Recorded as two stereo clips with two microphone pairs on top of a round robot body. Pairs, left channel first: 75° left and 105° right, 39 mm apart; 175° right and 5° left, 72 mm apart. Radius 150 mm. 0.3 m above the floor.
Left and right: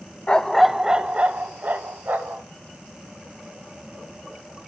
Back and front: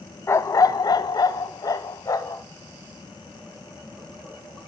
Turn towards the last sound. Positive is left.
turn(degrees=-140)